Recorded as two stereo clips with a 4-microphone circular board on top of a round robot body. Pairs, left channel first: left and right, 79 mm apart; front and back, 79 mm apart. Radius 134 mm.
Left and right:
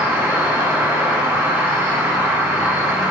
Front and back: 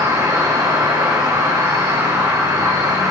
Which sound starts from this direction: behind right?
An insect, at 0.0 s.